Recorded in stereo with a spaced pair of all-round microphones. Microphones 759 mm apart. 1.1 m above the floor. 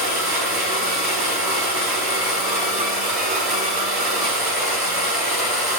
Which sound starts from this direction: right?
A machine running, at 0.0 s.